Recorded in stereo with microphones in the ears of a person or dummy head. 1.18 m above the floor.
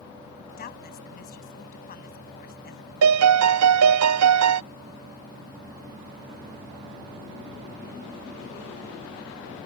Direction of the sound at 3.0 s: 85° right.